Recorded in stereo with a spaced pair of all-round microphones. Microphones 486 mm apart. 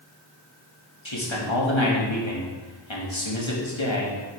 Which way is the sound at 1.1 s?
75° left (ahead or behind).